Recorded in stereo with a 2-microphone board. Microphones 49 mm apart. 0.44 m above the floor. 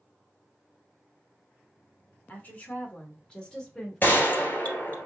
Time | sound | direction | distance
2.3 | a woman speaking | 35° left (ahead or behind) | 1.2 m
4.0 | a gunshot | 40° left (ahead or behind) | 1.6 m